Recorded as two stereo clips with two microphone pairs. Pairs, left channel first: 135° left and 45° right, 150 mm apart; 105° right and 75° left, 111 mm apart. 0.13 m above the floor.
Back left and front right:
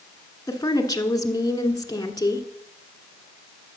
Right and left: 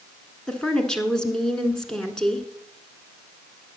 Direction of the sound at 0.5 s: 175° left.